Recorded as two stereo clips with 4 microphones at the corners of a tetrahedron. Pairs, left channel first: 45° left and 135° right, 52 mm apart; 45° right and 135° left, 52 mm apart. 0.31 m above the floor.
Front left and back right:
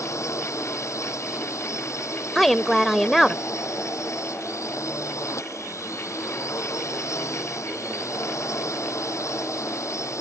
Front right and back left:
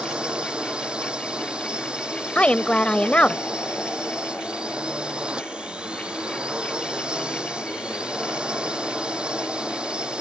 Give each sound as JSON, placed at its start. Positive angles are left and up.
{"t": 0.0, "sound": "a drone", "azimuth_deg": 65}
{"t": 2.4, "sound": "a woman speaking", "azimuth_deg": -35}